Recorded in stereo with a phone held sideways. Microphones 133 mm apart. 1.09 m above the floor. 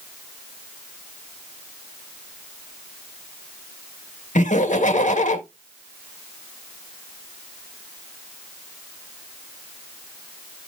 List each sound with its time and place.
4.3 s laughter: 75° left (ahead or behind), 1.4 m